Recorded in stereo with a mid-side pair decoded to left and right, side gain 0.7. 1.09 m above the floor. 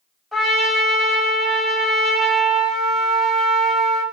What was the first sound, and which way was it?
A trumpet, 5° right.